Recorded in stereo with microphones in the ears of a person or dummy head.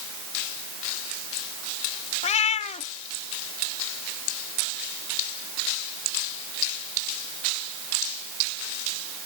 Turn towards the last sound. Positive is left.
turn(degrees=35)  # may be behind; listen again after turning